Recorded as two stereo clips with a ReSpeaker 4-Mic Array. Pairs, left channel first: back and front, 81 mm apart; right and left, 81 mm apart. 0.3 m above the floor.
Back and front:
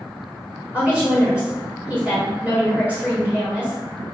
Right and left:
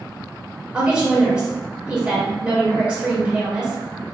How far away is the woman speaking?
About 1.6 m.